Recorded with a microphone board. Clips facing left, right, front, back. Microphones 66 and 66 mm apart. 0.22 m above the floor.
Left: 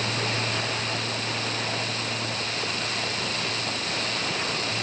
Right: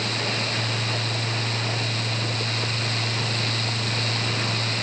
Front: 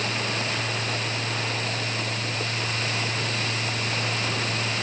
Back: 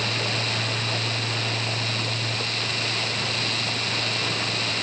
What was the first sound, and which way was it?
Only background noise.